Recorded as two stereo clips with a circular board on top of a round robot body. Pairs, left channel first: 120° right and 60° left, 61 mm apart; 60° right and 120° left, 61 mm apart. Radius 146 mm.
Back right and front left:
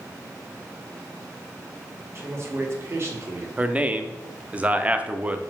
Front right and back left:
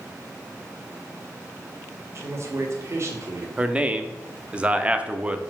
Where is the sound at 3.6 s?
80° left, 0.8 m.